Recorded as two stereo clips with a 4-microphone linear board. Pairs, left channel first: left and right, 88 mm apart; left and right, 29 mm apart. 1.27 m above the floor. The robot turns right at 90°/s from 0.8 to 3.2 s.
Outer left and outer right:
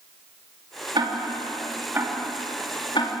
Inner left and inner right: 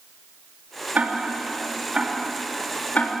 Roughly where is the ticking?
Right.